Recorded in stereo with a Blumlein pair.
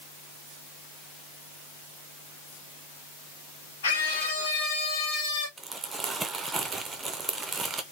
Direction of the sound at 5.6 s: 15° right.